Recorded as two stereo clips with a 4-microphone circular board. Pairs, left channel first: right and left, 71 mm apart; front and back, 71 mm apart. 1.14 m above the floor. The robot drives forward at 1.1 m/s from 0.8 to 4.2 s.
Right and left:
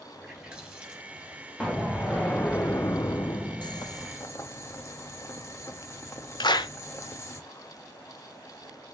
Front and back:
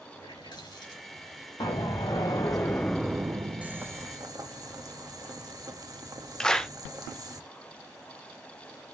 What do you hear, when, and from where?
0.1 s a running tap: 10° left, 6 m; by 1.5 s 15° left, 5 m
1.6 s an explosion: 15° right, 1.7 m; by 4.1 s 160° right, 1.3 m
3.6 s boiling: 105° right, 0.7 m; by 7.4 s 140° right, 1.1 m
6.4 s a clap: 80° right, 0.6 m